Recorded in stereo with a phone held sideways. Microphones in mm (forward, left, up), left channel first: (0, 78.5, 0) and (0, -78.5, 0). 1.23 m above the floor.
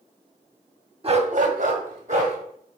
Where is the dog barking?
35° right (ahead or behind), 1.0 m; by 2.4 s 50° right (ahead or behind), 2.5 m.